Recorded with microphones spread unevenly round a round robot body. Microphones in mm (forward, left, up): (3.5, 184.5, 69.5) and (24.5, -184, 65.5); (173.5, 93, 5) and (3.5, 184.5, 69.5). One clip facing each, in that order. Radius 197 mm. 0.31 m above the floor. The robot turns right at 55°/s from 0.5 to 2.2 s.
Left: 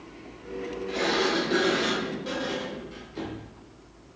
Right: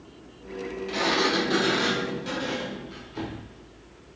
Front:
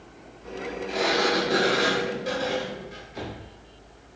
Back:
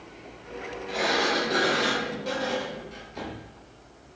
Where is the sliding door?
90° right, 1.0 m; by 3.5 s 20° right, 1.0 m.